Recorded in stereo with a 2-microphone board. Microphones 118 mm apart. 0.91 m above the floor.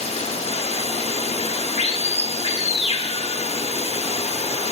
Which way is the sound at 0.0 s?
65° left (ahead or behind).